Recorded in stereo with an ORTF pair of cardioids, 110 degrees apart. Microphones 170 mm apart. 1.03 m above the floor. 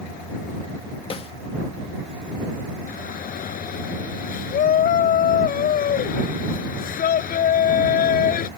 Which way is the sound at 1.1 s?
35° left.